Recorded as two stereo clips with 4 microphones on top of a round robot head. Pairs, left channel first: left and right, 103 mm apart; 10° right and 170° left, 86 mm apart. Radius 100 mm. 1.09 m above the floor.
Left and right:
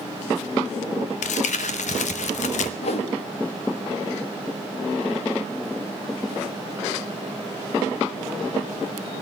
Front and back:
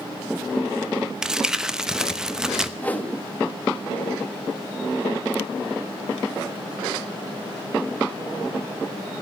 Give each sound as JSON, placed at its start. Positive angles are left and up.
{"t": 1.2, "sound": "crumpling", "azimuth_deg": 85, "distance_m": 0.9}
{"t": 2.8, "sound": "a whoosh", "azimuth_deg": 60, "distance_m": 1.9}